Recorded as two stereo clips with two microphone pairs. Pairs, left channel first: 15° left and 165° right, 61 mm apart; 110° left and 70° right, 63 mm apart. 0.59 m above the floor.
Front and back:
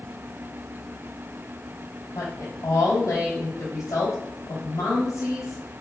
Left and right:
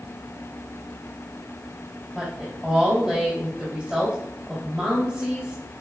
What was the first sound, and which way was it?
A woman speaking, 10° left.